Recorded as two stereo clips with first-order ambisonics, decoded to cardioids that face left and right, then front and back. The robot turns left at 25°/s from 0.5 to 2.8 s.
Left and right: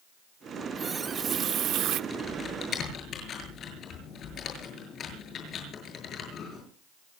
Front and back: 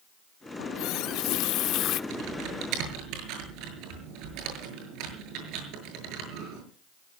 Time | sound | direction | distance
0.6 | a running tap | 10° right | 0.7 m
2.1 | typing on a keyboard | 165° left | 7 m